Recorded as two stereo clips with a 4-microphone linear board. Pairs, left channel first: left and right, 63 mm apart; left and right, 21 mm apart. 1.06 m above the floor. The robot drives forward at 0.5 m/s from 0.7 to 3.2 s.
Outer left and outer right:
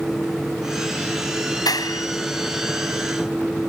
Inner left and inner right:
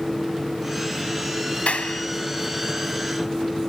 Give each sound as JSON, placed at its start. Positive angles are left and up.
{"t": 1.7, "sound": "a clap", "side_deg": 80}